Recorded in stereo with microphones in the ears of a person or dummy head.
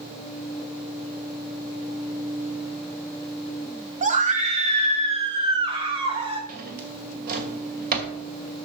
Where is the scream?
35° right (ahead or behind), 1.2 m; by 6.4 s 25° right (ahead or behind), 2.5 m.